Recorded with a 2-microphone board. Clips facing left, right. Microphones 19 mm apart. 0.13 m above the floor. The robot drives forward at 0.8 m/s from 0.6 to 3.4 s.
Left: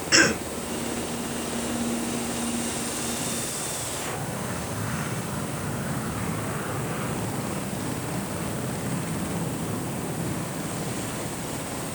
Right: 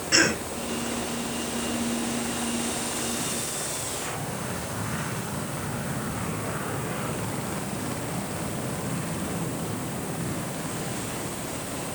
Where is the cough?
15° left (ahead or behind), 1.9 m.